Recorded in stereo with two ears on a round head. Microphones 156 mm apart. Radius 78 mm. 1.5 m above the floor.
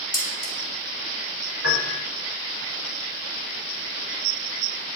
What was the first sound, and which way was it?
Dishes clattering, 25° left (ahead or behind).